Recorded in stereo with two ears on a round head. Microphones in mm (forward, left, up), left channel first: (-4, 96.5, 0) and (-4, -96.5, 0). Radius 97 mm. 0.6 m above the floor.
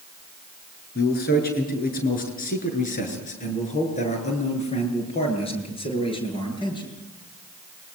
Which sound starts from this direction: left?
A man speaking, at 0.9 s.